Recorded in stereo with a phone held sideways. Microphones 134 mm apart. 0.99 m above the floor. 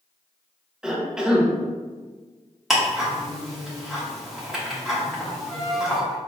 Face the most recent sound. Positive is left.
turn(degrees=5)  # may be behind; listen again after turning